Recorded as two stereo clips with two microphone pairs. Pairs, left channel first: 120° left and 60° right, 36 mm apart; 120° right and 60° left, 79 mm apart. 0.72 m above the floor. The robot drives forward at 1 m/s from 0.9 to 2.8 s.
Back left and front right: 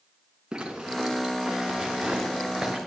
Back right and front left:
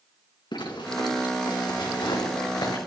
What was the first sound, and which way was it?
A zipper, 135° right.